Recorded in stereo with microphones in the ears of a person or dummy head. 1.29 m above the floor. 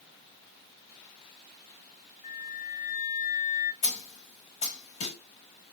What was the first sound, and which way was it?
A flute, 35° left (ahead or behind).